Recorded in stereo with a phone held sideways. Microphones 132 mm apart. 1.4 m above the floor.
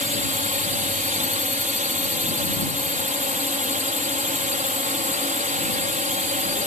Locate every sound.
0.0 s a drone: 75° right (ahead or behind)